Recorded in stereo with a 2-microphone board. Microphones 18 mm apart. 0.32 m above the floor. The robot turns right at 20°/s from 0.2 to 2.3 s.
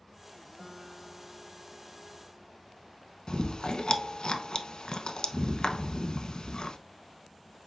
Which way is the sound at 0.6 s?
35° right.